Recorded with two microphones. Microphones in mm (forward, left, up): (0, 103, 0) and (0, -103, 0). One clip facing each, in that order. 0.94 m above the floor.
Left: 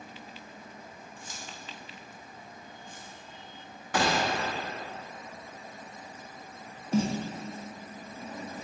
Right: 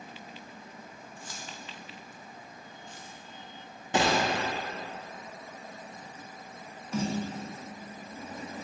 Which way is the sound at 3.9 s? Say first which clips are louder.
Right 1 dB; 25° right (ahead or behind).